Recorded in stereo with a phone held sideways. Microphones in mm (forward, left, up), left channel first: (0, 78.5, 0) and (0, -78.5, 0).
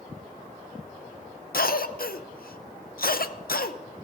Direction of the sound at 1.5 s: 70° left (ahead or behind).